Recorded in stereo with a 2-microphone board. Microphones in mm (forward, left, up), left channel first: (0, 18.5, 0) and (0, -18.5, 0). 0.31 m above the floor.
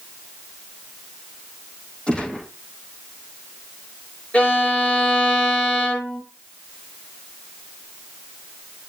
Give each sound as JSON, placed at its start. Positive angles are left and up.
{"t": 2.1, "sound": "a gunshot", "side_deg": 25, "distance_m": 4.0}
{"t": 4.3, "sound": "a violin", "side_deg": 35, "distance_m": 5.5}